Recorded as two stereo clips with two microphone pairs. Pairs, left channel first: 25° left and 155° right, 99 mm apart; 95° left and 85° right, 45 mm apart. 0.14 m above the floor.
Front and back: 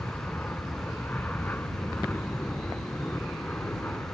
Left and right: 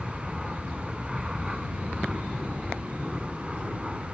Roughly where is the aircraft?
Ahead.